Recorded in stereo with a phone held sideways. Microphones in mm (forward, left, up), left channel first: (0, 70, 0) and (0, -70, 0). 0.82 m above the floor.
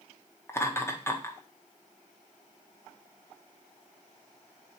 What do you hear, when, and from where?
0.5 s laughter: 20° left (ahead or behind), 1.2 m